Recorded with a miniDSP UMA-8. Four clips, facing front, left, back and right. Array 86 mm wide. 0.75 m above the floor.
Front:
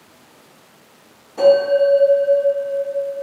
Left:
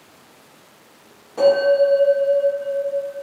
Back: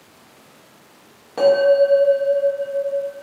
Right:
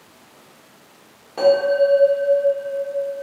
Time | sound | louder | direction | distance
1.4 | a bell | left 1 dB, front 1 dB | 165° right | 1.2 m